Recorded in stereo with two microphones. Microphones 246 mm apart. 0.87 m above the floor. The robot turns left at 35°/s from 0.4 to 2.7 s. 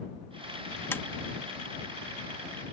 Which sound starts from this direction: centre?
Tapping, at 0.9 s.